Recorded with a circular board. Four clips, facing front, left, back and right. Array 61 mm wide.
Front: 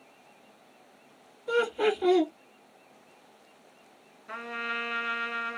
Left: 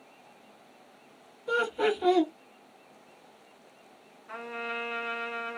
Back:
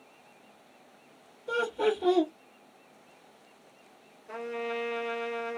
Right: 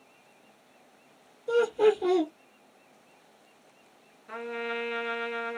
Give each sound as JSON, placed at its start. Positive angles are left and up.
{"t": 1.5, "sound": "laughter", "azimuth_deg": 60, "distance_m": 1.4}
{"t": 4.3, "sound": "a trumpet", "azimuth_deg": 0, "distance_m": 2.0}